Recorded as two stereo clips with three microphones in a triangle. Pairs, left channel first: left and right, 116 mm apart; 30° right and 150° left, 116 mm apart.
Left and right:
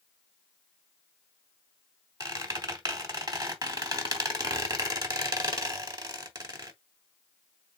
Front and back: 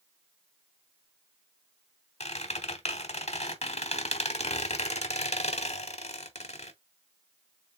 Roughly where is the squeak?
Ahead right.